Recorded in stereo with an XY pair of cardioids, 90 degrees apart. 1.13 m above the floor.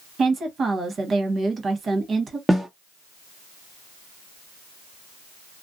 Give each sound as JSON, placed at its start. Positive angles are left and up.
{"t": 0.2, "sound": "a woman speaking", "azimuth_deg": -50, "distance_m": 1.1}
{"t": 2.5, "sound": "a snare drum", "azimuth_deg": -10, "distance_m": 1.2}